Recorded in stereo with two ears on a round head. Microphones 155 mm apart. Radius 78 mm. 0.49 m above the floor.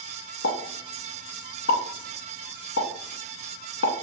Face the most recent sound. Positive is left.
turn(degrees=75)  # may be behind; listen again after turning